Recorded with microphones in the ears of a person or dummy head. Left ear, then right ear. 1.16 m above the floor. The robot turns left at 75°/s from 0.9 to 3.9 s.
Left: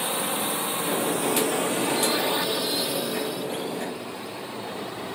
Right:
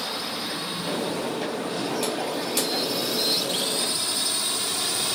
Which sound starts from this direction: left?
A drone, at 0.0 s.